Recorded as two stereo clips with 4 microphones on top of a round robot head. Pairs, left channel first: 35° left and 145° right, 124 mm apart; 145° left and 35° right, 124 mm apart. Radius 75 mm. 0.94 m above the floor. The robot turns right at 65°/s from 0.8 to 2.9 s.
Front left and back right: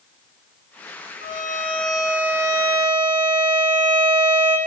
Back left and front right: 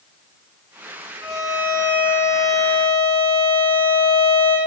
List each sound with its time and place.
1.2 s a violin: 40° left, 4.5 m; by 4.6 s 150° left, 4.5 m